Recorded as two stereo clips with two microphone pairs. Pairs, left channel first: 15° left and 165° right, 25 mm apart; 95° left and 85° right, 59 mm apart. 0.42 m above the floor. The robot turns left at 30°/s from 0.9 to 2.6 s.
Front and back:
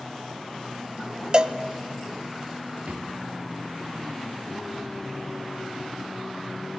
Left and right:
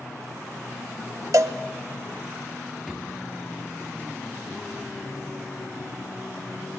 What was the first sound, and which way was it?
A cowbell, 110° right.